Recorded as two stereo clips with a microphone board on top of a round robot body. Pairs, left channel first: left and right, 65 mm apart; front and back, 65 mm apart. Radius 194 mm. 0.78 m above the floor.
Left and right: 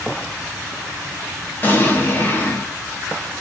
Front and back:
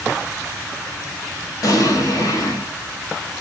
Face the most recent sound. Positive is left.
turn(degrees=30)